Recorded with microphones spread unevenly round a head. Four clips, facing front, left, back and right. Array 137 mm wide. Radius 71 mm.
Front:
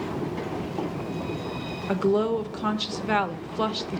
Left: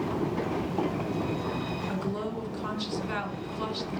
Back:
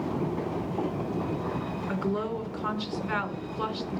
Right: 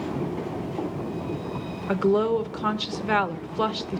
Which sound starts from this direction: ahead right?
A woman speaking, at 1.9 s.